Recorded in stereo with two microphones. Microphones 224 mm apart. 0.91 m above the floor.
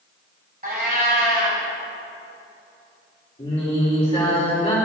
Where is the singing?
30° left (ahead or behind), 2.5 m.